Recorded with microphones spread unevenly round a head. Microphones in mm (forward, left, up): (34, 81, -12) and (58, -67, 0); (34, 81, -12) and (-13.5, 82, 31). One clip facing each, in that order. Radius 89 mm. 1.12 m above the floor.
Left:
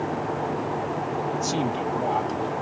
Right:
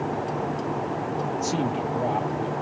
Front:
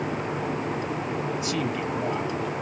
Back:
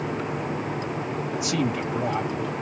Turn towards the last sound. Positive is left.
turn(degrees=-165)